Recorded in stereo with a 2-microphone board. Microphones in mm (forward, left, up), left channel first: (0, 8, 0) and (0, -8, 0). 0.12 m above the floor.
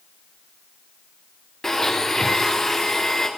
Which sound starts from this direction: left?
A blender, at 1.6 s.